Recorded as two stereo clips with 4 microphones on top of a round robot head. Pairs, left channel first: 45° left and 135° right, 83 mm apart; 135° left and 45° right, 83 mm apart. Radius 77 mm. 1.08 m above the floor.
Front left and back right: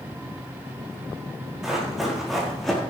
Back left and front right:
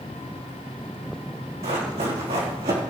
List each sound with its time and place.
1.6 s running footsteps: 50° right, 4 m; by 2.8 s 40° right, 4 m